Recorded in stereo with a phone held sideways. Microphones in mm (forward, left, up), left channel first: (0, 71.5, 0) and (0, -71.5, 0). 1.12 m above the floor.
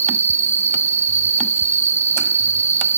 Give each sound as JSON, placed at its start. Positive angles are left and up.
{"t": 0.0, "sound": "an insect", "side_deg": -15}